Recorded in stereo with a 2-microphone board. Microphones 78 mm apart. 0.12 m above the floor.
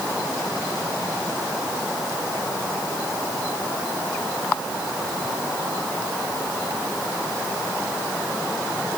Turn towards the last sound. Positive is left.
No sound to turn to.